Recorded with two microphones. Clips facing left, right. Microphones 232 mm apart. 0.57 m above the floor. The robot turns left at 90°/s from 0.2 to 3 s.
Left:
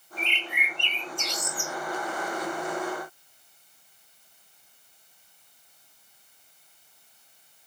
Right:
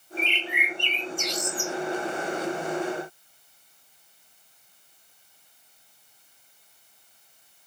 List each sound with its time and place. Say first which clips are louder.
0.2 s a bird: right 5 dB; 80° left, 1.1 m; by 1.7 s 60° right, 1.1 m